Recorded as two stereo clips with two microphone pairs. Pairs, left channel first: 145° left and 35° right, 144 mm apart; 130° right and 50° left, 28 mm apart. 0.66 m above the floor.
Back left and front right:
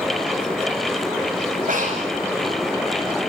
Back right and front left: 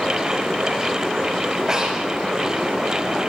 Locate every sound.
1.7 s breathing: 20° right, 6 m